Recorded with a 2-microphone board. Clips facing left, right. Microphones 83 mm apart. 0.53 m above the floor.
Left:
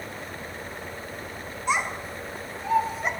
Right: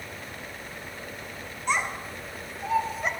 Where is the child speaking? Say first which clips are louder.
Left 1 dB; 5° left (ahead or behind), 3 m; by 3.1 s centre (ahead or behind), 2.0 m.